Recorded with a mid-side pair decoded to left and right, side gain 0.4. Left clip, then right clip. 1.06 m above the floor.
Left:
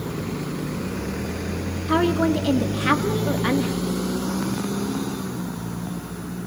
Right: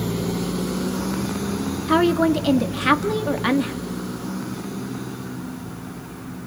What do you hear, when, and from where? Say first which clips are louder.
1.9 s a woman speaking: right 2 dB; 25° right, 1.6 m